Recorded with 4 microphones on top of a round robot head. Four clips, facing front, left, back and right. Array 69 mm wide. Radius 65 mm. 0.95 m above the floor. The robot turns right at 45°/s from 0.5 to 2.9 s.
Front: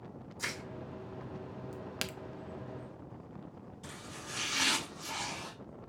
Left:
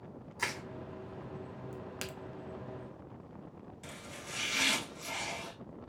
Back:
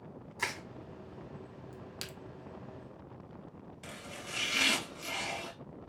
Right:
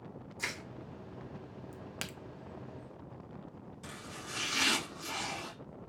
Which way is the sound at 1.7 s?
20° right.